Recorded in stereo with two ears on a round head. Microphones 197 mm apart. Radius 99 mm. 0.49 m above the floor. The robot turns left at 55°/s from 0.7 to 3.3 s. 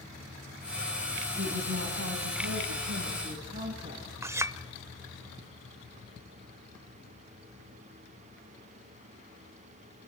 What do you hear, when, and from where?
1.4 s a woman speaking: 35° right, 4 m; by 4.1 s 140° right, 4 m
4.2 s a clink: 15° right (ahead or behind), 0.8 m